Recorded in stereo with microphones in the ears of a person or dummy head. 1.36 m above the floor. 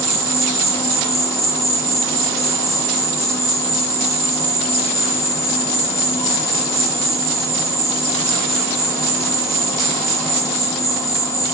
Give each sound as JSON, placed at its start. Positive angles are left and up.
{"t": 0.0, "sound": "an insect", "side_deg": 15, "distance_m": 1.3}